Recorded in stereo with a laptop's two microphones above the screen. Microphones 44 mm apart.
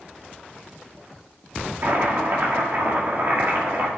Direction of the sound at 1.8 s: 55° right (ahead or behind).